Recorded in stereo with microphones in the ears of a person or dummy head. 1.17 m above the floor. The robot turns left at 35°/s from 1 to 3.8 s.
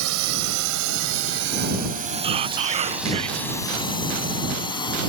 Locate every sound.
0.0 s a drone: 80° right; by 5.1 s 20° left (ahead or behind)
2.2 s whispering: 60° right; by 3.5 s 105° right